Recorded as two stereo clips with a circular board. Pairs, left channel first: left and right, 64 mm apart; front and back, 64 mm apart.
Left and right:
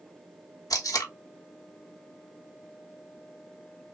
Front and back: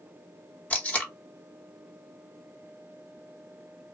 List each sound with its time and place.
0.7 s tape being pulled: 70° left, 0.6 m